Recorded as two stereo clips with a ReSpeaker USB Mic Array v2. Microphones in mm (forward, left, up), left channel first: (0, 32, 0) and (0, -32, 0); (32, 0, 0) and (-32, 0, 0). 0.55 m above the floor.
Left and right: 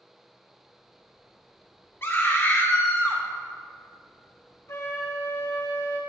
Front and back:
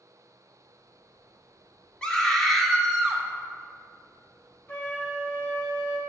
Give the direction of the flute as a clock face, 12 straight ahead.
10 o'clock.